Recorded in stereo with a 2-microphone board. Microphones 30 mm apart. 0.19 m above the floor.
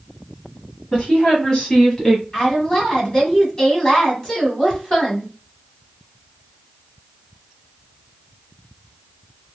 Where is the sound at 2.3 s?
25° left (ahead or behind), 1.6 m.